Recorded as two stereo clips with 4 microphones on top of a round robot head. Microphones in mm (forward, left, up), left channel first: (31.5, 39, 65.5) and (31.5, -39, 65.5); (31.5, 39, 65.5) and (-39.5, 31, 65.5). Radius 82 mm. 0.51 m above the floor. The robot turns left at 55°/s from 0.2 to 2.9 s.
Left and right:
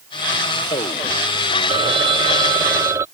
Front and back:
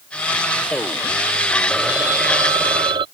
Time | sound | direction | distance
1.7 | a phone ringing | 85° right | ?